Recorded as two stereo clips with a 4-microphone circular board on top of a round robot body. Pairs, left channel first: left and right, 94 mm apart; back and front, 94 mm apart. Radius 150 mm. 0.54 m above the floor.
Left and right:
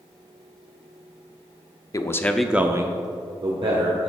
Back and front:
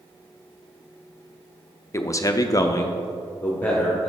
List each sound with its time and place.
1.9 s a man speaking: 130° left, 0.8 m; by 4.1 s 100° right, 1.7 m